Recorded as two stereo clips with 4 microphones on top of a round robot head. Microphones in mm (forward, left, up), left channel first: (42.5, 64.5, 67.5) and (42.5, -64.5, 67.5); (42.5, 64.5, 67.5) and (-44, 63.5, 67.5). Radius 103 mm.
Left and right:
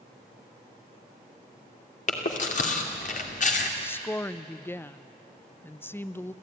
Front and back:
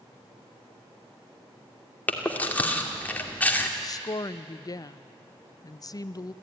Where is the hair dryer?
I don't hear a hair dryer.